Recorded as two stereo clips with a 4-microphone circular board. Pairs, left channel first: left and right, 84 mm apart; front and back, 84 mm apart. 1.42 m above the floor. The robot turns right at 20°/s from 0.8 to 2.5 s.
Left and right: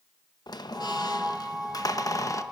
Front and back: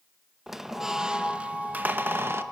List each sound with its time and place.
0.5 s a squeak: 95° left, 0.8 m; by 2.4 s 130° left, 0.8 m